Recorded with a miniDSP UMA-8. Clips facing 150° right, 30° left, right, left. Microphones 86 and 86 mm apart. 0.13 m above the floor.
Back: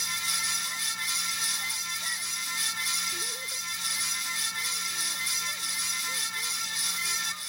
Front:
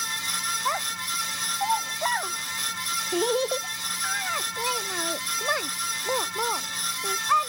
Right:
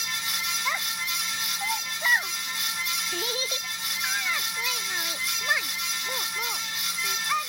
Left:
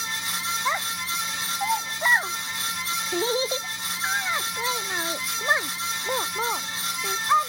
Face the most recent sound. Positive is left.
turn(degrees=35)